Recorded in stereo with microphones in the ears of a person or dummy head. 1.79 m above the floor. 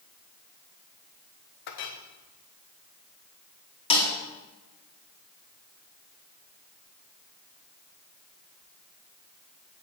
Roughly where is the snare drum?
Left.